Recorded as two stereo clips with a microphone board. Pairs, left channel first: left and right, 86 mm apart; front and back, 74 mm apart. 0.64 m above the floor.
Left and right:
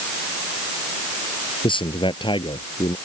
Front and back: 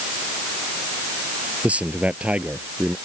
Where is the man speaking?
110° left.